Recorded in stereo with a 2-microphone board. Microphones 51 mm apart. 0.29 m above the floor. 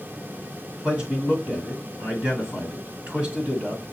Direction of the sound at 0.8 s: 25° right (ahead or behind).